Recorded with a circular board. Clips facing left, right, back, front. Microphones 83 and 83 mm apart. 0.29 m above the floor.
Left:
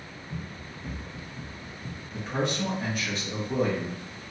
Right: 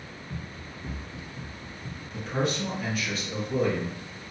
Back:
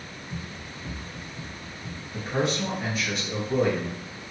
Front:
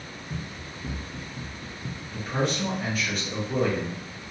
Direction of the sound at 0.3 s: 35° right.